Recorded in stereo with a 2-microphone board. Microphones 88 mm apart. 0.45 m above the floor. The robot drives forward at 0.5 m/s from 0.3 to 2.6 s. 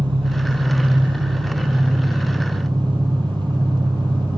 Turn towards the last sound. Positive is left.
turn(degrees=-60)  # may be behind; listen again after turning